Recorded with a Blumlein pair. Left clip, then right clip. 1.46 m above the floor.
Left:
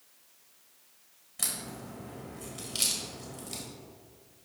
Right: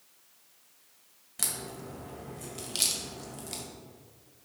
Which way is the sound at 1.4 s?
20° right.